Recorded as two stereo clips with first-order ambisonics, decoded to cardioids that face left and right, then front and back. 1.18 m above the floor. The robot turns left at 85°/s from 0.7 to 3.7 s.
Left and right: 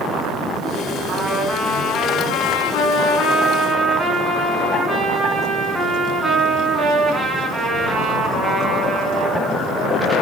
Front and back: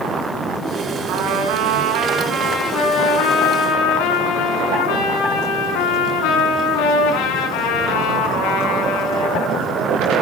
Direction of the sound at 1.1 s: 140° right.